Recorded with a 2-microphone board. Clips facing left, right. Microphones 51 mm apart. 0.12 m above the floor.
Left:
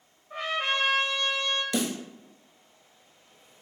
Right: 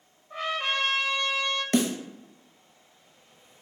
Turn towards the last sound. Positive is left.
turn(degrees=-50)  # may be behind; listen again after turning